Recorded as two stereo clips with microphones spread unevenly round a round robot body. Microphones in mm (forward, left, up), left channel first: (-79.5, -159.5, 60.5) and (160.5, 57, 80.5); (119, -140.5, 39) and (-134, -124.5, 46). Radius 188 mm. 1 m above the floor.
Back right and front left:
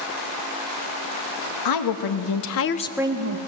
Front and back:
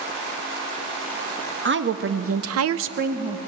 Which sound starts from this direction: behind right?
A woman speaking, at 1.6 s.